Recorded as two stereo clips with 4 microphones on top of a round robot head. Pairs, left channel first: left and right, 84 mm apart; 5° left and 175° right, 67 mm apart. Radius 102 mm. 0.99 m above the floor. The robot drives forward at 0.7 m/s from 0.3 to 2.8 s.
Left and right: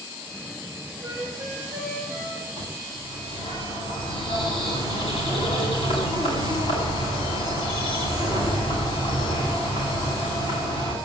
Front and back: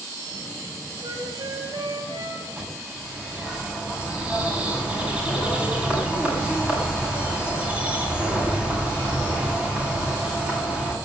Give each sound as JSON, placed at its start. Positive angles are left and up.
{"t": 1.0, "sound": "a flute", "azimuth_deg": -175, "distance_m": 5.5}
{"t": 2.6, "sound": "a bird", "azimuth_deg": 110, "distance_m": 8.0}